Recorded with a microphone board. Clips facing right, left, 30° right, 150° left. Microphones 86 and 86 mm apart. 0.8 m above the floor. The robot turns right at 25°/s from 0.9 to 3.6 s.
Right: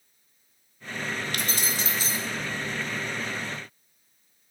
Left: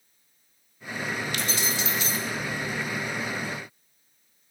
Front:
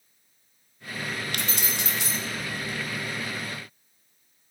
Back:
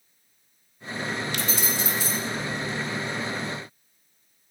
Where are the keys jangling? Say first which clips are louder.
Left 1 dB, back 3 dB; 55° right, 1.0 m; by 2.2 s 35° right, 1.0 m.